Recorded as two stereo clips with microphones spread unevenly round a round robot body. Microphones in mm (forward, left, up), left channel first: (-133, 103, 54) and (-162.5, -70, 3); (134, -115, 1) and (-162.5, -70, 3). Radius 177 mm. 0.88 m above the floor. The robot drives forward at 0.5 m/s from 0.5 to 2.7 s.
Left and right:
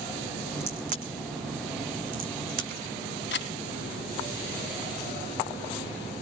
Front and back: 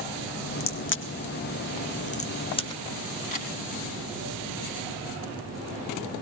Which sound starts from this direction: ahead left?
A camera shutter, at 3.3 s.